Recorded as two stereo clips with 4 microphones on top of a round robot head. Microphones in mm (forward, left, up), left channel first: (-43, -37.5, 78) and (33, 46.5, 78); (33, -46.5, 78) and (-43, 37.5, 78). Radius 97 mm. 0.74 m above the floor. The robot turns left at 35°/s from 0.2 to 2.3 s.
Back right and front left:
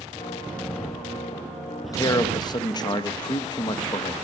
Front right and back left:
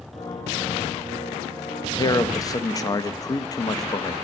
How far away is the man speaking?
About 0.5 m.